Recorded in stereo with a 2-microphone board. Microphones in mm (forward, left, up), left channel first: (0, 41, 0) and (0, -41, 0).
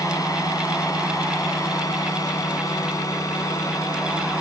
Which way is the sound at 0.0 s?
45° left (ahead or behind).